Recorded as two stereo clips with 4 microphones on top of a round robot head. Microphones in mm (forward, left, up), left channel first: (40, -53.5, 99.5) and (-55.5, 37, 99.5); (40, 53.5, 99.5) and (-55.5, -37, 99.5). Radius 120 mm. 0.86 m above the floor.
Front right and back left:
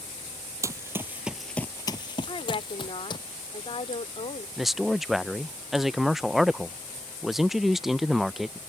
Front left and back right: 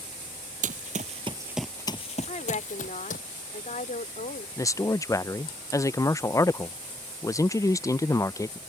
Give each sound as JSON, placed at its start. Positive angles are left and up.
{"t": 0.6, "sound": "running footsteps", "azimuth_deg": -160}
{"t": 2.3, "sound": "a woman speaking", "azimuth_deg": 10}
{"t": 4.6, "sound": "a man speaking", "azimuth_deg": 50}